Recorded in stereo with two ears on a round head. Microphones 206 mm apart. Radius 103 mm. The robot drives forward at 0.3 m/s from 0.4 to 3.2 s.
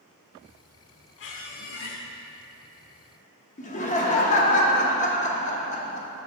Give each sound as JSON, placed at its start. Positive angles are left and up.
{"t": 1.2, "sound": "a squeak", "side_deg": 55, "distance_m": 0.7}
{"t": 3.6, "sound": "laughter", "side_deg": 35, "distance_m": 0.8}